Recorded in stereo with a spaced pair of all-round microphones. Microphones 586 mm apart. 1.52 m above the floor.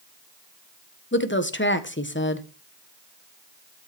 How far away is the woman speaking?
About 1.4 m.